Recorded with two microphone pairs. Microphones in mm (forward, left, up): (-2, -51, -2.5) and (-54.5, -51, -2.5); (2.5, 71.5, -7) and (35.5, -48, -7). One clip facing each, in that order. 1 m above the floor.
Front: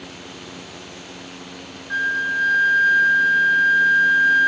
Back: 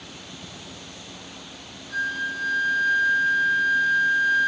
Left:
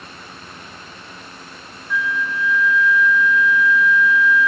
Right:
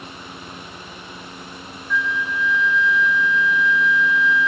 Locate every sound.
1.9 s a flute: 20° left, 1.0 m